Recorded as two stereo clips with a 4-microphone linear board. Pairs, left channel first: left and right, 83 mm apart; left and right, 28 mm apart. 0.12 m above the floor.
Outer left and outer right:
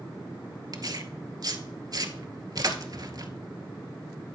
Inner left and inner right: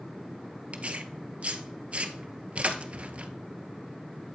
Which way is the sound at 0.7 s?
50° right (ahead or behind).